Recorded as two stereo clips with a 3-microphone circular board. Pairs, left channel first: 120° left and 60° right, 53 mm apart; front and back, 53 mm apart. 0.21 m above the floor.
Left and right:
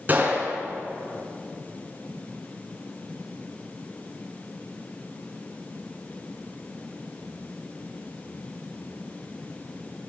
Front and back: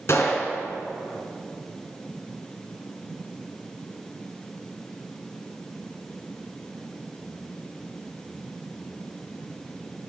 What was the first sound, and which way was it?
A gunshot, 15° right.